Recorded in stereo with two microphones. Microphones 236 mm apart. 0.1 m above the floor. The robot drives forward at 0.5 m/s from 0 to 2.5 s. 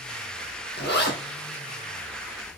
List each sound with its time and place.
0.8 s a zipper: 50° left (ahead or behind), 1.4 m; by 1.2 s 45° left (ahead or behind), 1.5 m